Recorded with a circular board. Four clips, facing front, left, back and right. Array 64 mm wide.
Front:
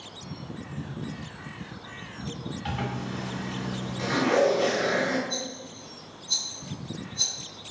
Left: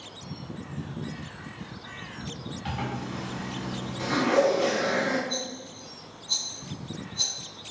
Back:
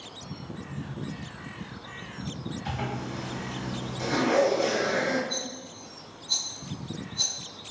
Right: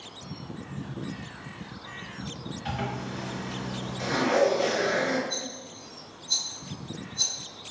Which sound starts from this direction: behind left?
A rattle, at 5.3 s.